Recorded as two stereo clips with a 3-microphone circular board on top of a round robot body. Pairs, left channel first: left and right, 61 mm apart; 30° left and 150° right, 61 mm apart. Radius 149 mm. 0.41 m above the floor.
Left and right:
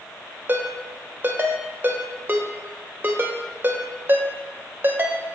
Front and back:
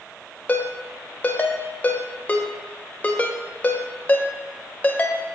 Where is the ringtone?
35° right, 1.5 m.